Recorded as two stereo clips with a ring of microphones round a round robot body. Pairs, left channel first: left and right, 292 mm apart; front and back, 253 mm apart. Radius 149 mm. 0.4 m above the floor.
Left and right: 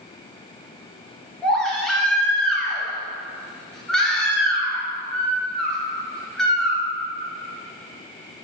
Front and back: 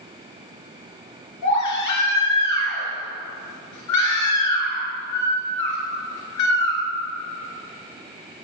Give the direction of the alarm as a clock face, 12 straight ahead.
I don't hear an alarm.